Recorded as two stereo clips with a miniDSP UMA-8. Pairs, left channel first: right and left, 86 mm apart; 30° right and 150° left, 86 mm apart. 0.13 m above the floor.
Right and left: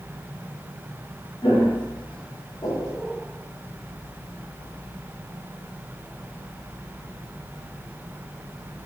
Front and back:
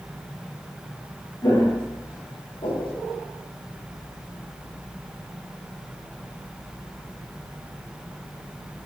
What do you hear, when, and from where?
1.4 s footsteps: 70° right, 3.5 m; by 3.0 s 40° right, 3 m